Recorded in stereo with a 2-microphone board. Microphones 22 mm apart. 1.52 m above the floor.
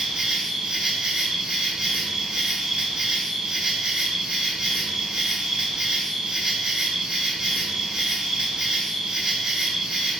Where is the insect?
30° right (ahead or behind), 1.0 m.